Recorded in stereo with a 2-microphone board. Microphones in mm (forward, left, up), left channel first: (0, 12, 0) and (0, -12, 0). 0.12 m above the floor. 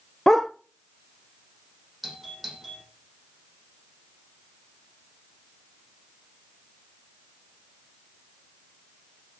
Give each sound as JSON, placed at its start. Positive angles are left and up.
{"t": 0.3, "sound": "a dog barking", "side_deg": 15, "distance_m": 1.3}
{"t": 2.0, "sound": "a doorbell", "side_deg": -5, "distance_m": 7.0}